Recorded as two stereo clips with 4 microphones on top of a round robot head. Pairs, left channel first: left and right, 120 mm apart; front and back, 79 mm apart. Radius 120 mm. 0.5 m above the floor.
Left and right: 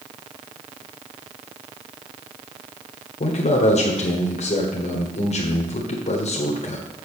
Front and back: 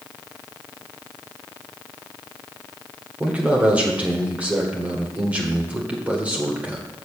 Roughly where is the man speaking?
Left.